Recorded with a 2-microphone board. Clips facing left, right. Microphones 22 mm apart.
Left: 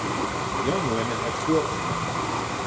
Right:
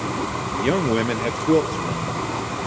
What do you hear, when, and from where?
0.5 s a man speaking: 50° right (ahead or behind), 1.9 m; by 2.7 s 65° right (ahead or behind), 3 m